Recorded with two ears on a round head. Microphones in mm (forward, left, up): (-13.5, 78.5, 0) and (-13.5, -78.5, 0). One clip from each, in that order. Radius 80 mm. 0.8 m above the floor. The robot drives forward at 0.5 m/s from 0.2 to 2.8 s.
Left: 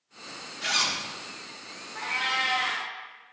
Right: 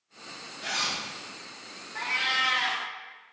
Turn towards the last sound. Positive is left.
turn(degrees=-75)  # may be behind; listen again after turning